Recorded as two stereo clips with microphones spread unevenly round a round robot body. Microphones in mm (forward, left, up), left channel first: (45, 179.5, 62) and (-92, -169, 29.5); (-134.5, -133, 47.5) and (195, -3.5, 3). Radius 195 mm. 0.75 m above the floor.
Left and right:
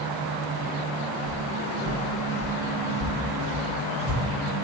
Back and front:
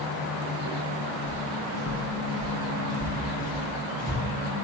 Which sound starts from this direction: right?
Footsteps, at 1.3 s.